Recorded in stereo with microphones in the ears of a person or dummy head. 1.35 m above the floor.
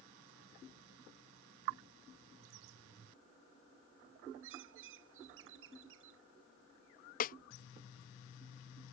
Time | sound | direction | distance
4.4 | a bird | 65° right (ahead or behind) | ?
7.2 | a snare drum | 40° left (ahead or behind) | ?